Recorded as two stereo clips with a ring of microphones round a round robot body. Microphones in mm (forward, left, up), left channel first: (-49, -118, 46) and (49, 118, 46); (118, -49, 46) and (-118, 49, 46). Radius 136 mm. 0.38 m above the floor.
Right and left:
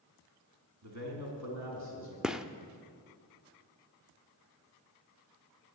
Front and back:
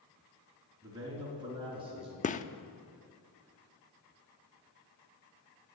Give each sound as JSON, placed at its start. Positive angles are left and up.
{"t": 0.8, "sound": "a man speaking", "azimuth_deg": 80, "distance_m": 3.5}
{"t": 2.2, "sound": "a gunshot", "azimuth_deg": -15, "distance_m": 0.6}